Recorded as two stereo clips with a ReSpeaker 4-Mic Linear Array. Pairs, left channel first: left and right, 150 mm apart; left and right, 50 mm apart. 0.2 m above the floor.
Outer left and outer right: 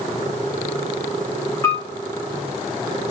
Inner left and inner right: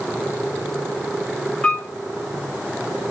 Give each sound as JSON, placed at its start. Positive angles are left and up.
{"t": 1.6, "sound": "a piano", "side_deg": 20, "distance_m": 5.5}